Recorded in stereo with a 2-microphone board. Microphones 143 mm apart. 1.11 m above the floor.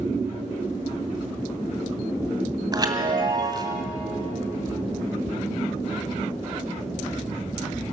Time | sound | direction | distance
2.7 | a chime | 30° right (ahead or behind) | 2 m